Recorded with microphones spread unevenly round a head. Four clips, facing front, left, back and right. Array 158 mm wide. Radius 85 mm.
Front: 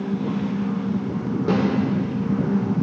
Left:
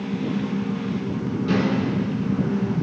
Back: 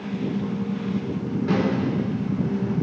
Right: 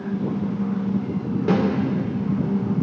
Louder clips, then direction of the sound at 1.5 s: Right 2 dB, front 2 dB; 60° right.